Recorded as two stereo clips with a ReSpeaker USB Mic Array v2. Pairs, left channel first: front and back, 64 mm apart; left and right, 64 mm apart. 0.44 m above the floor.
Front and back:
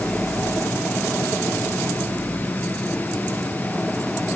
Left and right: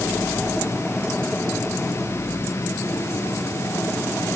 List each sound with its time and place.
Only background noise.